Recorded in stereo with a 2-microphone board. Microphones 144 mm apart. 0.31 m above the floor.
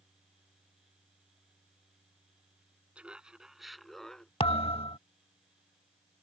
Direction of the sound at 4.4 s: 40° left (ahead or behind).